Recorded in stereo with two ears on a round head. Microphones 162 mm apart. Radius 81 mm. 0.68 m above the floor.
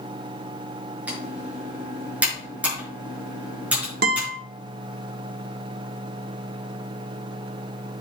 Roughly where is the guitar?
Right.